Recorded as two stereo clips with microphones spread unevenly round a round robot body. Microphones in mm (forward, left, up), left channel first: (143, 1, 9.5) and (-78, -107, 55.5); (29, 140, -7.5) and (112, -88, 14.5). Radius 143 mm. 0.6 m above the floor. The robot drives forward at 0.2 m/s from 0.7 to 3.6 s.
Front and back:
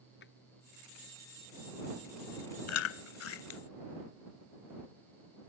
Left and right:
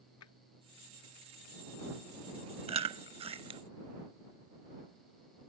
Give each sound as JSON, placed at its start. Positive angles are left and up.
{"t": 0.2, "sound": "a drawer", "azimuth_deg": 85}
{"t": 2.7, "sound": "chewing", "azimuth_deg": -5}